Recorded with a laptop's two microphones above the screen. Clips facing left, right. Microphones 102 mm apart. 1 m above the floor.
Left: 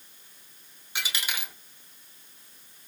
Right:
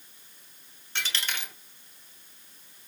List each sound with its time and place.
0.9 s a dropped coin: 10° left (ahead or behind), 1.2 m